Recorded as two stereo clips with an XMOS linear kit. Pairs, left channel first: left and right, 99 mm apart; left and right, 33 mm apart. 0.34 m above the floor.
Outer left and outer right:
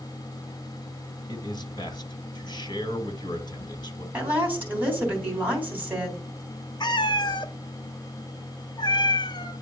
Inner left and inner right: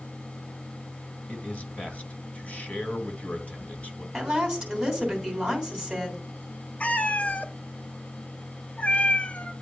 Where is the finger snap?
I don't hear a finger snap.